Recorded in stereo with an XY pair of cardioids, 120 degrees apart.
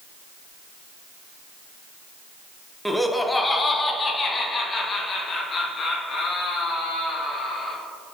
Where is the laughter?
Straight ahead, 0.9 m; by 7.8 s 50° left, 3.5 m.